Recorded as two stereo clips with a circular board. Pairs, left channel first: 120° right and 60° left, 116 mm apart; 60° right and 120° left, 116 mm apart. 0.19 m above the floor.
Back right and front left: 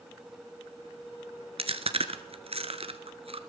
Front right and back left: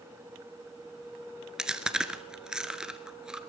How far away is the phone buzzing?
I don't hear a phone buzzing.